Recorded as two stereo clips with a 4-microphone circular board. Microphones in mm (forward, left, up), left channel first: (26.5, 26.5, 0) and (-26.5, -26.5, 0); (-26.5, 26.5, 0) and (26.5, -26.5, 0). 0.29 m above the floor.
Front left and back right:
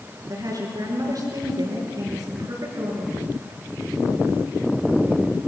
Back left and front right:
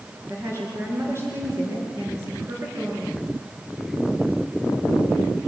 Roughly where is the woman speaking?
Right.